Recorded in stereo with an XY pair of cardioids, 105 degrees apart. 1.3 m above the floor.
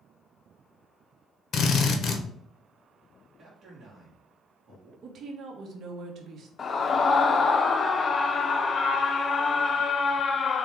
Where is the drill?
60° left, 0.9 m.